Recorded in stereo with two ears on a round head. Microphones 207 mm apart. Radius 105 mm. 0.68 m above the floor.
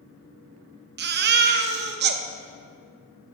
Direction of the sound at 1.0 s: 45° right (ahead or behind).